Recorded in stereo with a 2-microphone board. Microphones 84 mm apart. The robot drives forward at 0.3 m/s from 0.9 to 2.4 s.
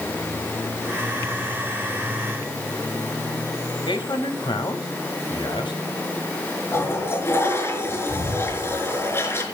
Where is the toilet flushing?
30° left (ahead or behind), 4.5 m.